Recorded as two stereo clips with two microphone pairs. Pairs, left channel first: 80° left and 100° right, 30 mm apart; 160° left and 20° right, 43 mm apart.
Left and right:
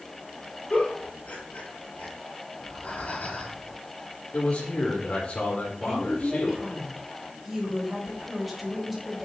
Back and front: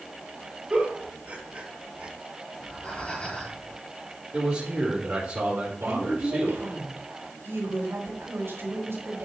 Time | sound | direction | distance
0.7 | a giggle | 40° left | 6.5 m
2.5 | breathing | 100° left | 4 m
4.3 | a man speaking | 30° left | 4 m
5.8 | a woman speaking | 15° right | 5 m